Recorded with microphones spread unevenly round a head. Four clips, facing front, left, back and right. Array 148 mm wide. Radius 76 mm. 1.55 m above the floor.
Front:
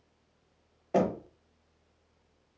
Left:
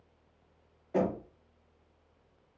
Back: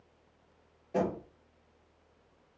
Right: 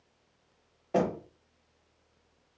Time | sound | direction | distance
0.9 | knocking | 35° right | 1.1 m